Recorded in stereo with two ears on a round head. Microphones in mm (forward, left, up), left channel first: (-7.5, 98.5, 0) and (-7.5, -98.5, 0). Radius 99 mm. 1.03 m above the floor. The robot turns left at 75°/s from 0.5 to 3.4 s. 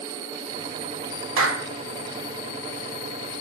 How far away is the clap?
About 1.4 m.